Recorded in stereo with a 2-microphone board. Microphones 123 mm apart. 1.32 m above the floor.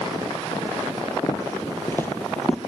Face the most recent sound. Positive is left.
turn(degrees=5)  # may be behind; listen again after turning